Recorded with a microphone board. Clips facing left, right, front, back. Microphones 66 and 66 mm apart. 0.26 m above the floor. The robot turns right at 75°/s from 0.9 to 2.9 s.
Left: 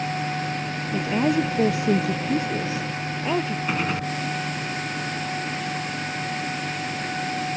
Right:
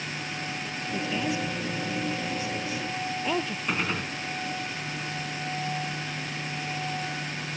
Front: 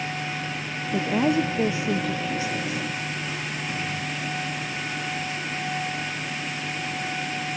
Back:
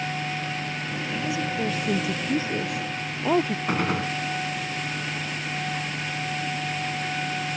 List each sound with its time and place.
0.9 s a woman speaking: 20° left; by 3.6 s 165° left
3.7 s a gunshot: 170° left